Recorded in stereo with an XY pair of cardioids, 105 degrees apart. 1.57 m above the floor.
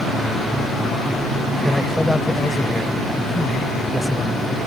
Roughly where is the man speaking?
Ahead.